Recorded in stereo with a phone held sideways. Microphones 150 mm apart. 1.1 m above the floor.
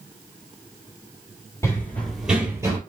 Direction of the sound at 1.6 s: 20° left (ahead or behind).